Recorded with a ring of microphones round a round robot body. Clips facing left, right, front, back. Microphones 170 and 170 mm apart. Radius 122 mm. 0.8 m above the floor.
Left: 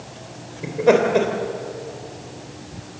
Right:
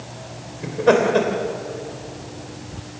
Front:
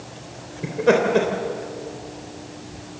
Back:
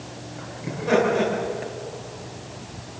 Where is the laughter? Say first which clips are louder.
Even, front 3 dB; 10° left, 3.5 m.